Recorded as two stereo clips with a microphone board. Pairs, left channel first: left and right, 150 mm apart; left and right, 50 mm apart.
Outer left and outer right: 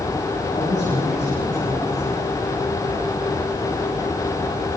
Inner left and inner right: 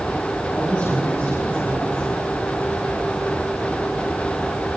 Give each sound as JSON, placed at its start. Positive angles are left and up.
{"t": 0.5, "sound": "a woman speaking", "side_deg": 55, "distance_m": 8.5}